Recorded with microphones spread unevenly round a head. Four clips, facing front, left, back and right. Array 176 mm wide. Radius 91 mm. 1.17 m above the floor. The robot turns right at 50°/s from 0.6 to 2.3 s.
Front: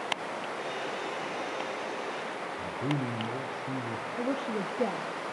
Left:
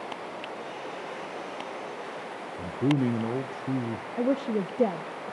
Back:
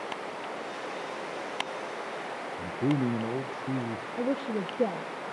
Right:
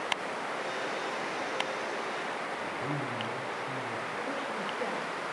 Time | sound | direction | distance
2.6 | a man speaking | 125° left | 0.7 m
4.2 | a woman speaking | 110° left | 0.8 m